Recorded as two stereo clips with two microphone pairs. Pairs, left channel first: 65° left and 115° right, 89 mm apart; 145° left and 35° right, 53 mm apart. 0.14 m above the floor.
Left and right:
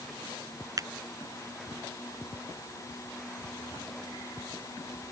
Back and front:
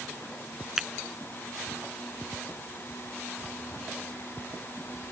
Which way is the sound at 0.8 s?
110° right.